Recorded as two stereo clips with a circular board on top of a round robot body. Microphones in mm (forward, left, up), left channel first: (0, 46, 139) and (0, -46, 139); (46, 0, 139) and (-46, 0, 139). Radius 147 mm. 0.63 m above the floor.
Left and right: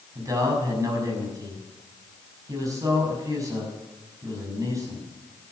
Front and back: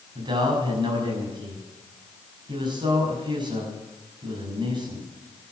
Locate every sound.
0.1 s a man speaking: 145° right, 6.5 m